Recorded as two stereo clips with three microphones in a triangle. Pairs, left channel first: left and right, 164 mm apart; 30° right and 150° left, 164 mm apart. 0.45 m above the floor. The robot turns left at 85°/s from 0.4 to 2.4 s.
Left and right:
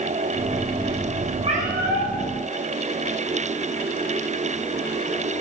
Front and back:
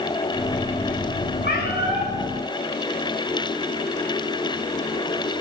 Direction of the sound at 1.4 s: 35° right.